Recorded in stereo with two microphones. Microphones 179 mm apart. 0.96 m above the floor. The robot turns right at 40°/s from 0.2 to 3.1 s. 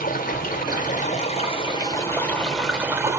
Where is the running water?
85° left, 0.9 m; by 3.2 s 160° right, 0.9 m.